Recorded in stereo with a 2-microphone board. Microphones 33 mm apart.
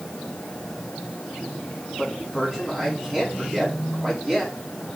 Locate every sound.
2.0 s a man speaking: 5° left (ahead or behind), 5 m